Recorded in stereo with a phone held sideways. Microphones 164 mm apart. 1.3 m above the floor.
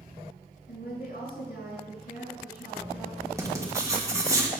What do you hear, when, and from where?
0.7 s a woman speaking: 75° left (ahead or behind), 5 m
3.4 s writing: 20° right (ahead or behind), 1.6 m